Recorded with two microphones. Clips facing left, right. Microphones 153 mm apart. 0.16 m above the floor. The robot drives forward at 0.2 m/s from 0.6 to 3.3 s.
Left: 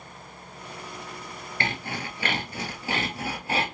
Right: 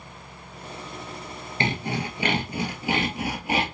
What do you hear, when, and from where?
1.6 s sawing: 20° right (ahead or behind), 0.8 m; by 3.6 s 15° right (ahead or behind), 1.1 m